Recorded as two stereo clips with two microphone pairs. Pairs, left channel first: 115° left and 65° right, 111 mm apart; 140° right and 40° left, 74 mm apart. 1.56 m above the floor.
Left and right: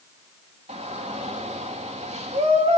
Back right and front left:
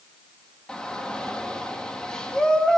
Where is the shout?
60° right, 3.5 m.